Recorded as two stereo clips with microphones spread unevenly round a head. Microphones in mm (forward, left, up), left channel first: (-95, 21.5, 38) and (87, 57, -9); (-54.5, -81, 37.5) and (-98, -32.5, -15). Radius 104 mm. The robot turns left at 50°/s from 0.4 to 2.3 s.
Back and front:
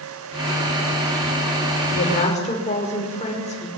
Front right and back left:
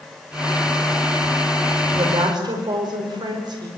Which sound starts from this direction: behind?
A woman speaking, at 1.9 s.